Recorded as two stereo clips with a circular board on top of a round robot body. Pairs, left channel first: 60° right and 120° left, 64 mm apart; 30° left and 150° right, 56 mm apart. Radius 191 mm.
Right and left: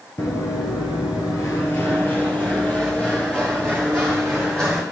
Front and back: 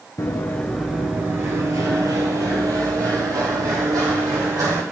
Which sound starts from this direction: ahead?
Running footsteps, at 0.2 s.